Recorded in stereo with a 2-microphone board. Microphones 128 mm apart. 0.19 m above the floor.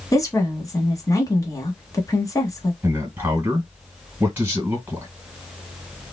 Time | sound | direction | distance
0.1 | a woman speaking | 25° left (ahead or behind) | 1.1 m
2.8 | a man speaking | 20° right (ahead or behind) | 1.6 m